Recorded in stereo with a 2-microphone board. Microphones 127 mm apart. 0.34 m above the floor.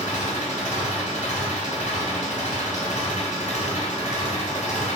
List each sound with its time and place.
0.0 s an engine running: 75° left (ahead or behind), 1.5 m